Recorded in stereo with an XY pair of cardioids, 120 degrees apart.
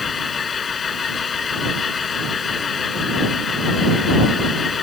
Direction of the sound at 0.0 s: 35° left.